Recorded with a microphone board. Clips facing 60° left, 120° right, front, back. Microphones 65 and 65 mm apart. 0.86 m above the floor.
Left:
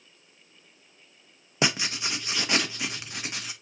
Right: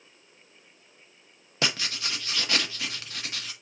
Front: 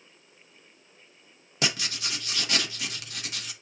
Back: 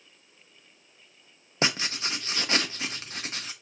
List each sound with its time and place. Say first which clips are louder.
1.6 s writing: left 3 dB, back 2 dB; 130° left, 0.7 m